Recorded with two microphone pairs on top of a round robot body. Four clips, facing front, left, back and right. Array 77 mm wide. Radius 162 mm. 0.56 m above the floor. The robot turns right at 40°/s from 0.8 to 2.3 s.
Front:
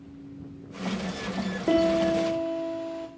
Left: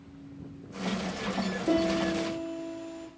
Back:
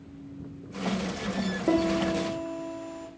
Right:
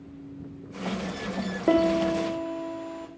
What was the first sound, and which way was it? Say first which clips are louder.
A piano: right 5 dB, front 3 dB; 90° right.